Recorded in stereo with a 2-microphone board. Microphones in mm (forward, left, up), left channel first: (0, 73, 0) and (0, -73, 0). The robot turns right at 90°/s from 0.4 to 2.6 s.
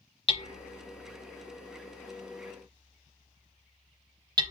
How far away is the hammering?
About 0.6 m.